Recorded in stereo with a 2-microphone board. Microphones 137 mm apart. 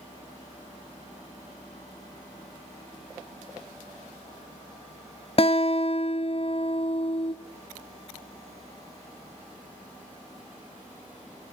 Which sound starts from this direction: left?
A guitar, at 5.4 s.